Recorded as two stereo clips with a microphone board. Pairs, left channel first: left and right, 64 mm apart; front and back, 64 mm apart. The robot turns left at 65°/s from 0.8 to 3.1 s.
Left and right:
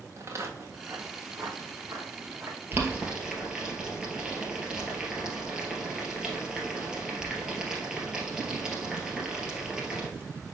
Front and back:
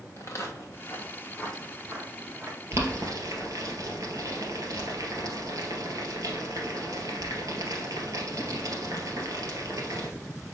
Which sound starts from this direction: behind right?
Boiling, at 2.7 s.